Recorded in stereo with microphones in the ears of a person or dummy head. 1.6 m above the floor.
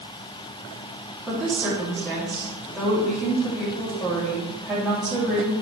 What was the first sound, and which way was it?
A woman speaking, 5° right (ahead or behind).